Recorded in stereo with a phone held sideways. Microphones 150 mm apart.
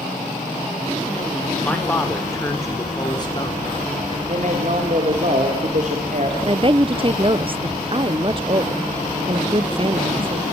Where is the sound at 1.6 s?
10° left (ahead or behind), 4 m; by 4.2 s 40° left (ahead or behind), 3.5 m.